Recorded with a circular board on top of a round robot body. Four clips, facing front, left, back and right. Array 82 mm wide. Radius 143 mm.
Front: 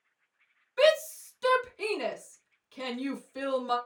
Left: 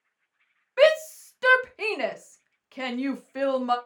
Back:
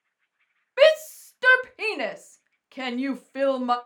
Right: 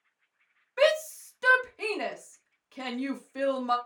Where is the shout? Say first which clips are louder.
Left 5 dB, back 6 dB; 155° left, 0.9 m.